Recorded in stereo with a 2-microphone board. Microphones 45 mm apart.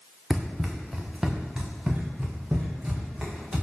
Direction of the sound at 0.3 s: 5° right (ahead or behind).